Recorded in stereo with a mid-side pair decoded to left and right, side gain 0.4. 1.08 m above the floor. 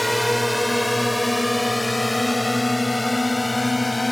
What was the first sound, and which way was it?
A drone, straight ahead.